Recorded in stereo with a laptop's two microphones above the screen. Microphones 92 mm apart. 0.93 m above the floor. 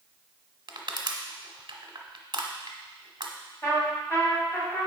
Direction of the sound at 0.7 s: 55° right (ahead or behind).